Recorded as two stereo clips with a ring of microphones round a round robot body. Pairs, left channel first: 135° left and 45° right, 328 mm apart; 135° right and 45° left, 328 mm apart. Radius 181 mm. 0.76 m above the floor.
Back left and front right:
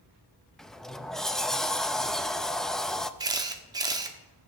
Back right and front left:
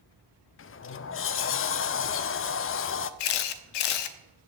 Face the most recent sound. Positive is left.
turn(degrees=-125)